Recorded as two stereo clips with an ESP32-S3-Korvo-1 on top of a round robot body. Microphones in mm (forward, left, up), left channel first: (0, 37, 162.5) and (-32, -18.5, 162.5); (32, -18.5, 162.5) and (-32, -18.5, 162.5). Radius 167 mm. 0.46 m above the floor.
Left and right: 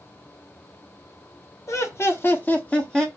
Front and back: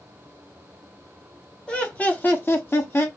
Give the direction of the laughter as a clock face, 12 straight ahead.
10 o'clock.